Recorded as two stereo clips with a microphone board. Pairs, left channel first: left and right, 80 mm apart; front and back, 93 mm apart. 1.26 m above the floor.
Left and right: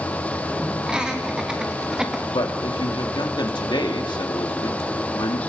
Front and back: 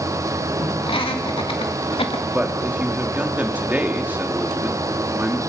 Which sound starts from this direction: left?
A man speaking, at 2.3 s.